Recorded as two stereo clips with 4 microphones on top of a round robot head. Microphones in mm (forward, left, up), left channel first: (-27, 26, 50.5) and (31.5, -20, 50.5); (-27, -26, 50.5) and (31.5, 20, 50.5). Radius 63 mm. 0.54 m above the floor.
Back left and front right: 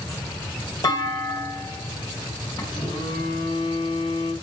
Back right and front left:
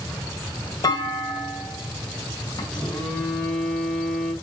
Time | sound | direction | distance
0.8 | a clunk | straight behind | 3 m
2.7 | a phone buzzing | 145° left | 5 m